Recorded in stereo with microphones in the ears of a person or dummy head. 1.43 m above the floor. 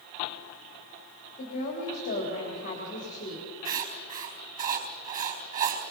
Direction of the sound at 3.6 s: 40° right (ahead or behind).